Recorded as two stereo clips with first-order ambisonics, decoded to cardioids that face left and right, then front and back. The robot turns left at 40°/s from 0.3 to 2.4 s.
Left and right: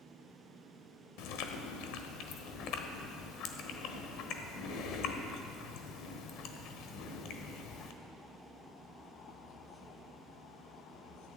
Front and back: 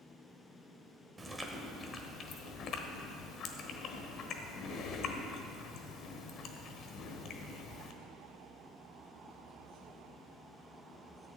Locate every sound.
1.2 s chewing: 100° left, 1.1 m; by 7.9 s 55° left, 1.1 m